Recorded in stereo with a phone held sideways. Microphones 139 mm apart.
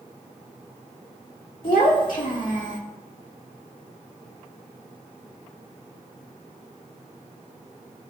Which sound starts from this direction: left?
A child speaking, at 1.6 s.